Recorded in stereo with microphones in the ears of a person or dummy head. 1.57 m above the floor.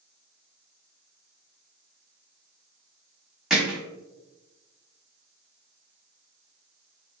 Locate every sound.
3.5 s hammering: centre (ahead or behind), 0.8 m